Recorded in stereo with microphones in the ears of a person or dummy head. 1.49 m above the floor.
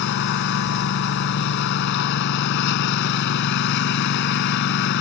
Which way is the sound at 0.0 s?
65° left (ahead or behind).